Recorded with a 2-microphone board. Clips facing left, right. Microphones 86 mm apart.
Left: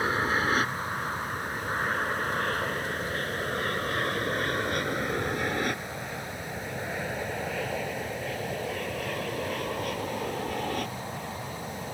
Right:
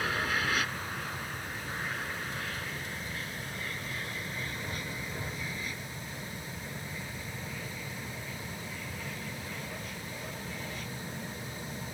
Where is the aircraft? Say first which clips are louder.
Left 5 dB; 30° left (ahead or behind); by 11.9 s 65° left (ahead or behind).